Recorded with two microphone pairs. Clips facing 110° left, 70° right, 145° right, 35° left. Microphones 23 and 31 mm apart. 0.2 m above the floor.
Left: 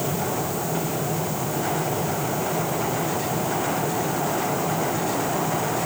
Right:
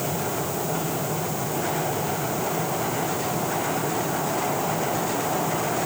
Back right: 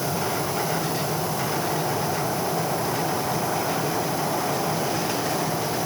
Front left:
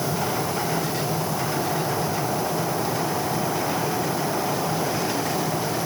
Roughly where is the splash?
I don't hear a splash.